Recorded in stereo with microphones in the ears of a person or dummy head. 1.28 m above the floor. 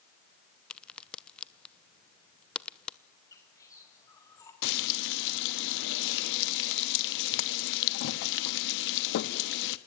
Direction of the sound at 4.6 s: 70° left (ahead or behind).